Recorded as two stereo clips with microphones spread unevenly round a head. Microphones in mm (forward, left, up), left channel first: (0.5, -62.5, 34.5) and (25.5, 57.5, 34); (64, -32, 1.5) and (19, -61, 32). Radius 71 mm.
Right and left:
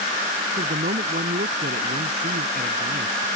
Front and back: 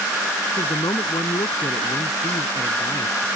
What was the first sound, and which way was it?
A man speaking, 50° left.